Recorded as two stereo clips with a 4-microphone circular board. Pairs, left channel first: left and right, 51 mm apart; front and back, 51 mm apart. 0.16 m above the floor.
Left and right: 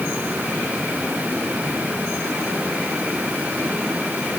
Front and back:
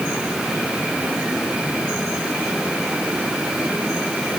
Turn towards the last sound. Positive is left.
No sound to turn to.